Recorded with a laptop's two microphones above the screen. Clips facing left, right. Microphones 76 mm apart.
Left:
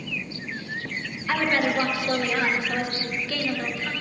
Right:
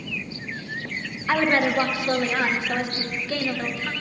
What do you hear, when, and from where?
1.3 s a woman speaking: 25° right (ahead or behind), 0.8 m